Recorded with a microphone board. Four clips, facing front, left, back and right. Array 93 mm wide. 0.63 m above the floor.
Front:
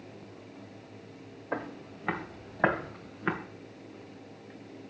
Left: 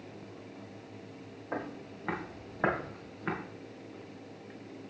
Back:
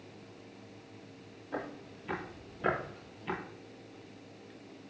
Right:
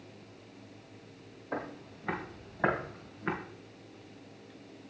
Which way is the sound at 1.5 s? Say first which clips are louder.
Even, front 4 dB; 20° left.